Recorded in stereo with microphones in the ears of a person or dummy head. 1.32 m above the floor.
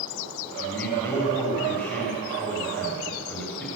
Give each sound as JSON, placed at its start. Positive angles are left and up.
{"t": 0.6, "sound": "a man speaking", "side_deg": 5, "distance_m": 6.0}